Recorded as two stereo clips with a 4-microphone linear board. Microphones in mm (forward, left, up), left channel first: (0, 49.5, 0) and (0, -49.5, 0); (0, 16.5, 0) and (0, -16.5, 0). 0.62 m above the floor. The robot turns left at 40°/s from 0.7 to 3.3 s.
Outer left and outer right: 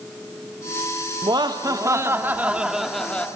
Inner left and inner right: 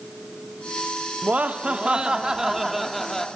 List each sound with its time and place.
1.2 s laughter: 115° right, 0.9 m; by 3.3 s 165° left, 0.9 m